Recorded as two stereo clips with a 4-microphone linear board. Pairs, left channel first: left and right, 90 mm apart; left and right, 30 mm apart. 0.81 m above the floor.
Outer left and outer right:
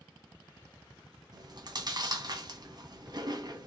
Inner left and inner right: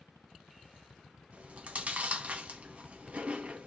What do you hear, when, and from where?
1.3 s chewing: 50° right (ahead or behind), 0.9 m